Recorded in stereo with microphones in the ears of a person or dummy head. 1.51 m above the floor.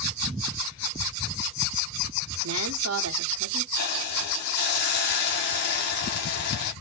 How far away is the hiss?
About 1.0 m.